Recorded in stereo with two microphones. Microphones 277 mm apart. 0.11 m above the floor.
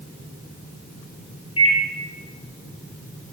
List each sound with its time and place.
1.6 s a microwave: 60° left (ahead or behind), 2 m